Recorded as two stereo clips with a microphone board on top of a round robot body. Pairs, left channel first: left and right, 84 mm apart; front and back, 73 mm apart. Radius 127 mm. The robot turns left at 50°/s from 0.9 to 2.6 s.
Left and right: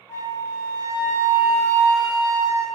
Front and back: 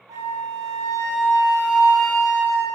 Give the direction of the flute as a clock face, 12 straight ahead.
7 o'clock.